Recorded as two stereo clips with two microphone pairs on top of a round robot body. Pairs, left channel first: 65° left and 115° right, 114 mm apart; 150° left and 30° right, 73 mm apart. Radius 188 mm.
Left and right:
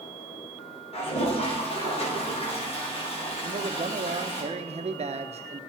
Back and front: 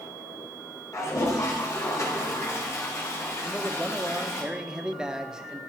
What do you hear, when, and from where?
0.9 s a toilet flushing: 100° left, 2.5 m
3.4 s a man speaking: 110° right, 1.1 m